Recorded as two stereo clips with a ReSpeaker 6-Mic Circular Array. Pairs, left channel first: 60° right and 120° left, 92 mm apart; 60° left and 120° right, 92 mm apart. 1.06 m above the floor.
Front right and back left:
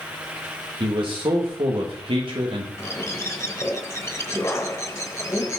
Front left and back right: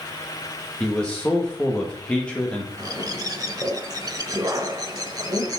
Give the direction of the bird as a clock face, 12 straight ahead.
3 o'clock.